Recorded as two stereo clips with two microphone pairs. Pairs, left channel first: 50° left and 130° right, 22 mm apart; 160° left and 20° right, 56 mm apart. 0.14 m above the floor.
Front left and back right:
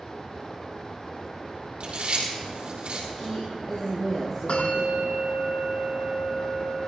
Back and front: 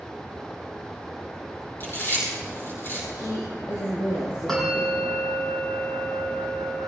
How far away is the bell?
About 4 m.